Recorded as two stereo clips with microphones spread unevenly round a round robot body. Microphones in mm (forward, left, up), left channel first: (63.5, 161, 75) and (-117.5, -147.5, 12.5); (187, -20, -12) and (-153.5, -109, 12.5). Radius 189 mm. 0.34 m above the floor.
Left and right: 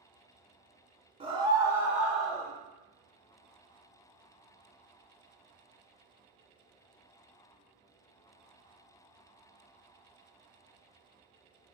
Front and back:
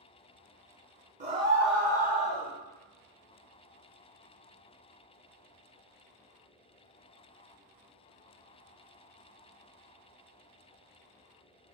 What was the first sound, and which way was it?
A scream, 115° right.